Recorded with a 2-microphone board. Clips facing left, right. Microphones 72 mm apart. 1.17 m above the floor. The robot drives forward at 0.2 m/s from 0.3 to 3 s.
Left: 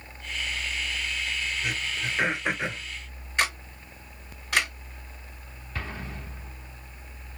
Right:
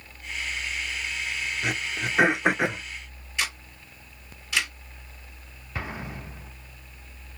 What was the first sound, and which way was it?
Throat clearing, 65° right (ahead or behind).